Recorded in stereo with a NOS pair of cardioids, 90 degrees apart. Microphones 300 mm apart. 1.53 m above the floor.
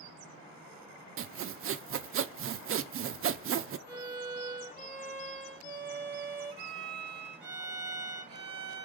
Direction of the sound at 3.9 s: 35° right.